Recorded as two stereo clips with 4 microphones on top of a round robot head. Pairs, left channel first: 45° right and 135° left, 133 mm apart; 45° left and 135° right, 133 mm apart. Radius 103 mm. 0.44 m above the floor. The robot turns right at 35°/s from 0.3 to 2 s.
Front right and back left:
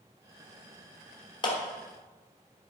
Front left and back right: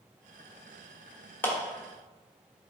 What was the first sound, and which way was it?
A clap, 25° right.